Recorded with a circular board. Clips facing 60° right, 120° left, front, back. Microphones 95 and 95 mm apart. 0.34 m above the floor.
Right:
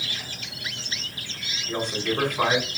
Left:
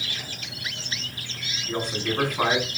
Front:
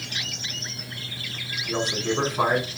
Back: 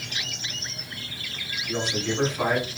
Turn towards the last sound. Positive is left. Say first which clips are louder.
# right 1 dB, front 2 dB
turn(degrees=30)